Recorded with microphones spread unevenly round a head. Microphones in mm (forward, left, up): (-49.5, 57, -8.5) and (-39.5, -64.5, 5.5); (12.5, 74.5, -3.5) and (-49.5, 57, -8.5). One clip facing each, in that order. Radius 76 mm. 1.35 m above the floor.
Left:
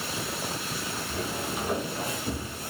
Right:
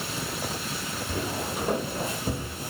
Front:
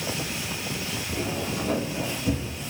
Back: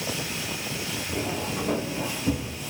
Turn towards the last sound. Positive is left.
turn(degrees=-60)